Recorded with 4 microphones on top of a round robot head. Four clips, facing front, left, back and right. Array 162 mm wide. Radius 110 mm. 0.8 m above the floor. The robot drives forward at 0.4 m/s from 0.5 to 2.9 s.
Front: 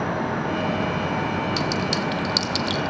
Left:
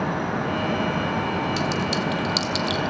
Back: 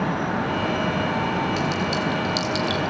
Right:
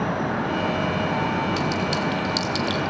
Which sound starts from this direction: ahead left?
A clink, at 1.6 s.